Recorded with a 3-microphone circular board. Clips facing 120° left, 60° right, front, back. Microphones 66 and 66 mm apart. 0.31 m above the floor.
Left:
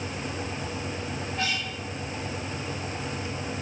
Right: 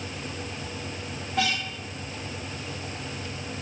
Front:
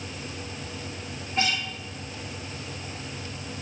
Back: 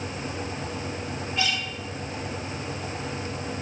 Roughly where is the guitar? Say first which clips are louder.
Right 5 dB, front 2 dB; ahead right.